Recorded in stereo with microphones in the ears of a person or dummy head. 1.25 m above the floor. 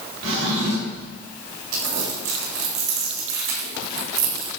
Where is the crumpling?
75° right (ahead or behind), 5 m.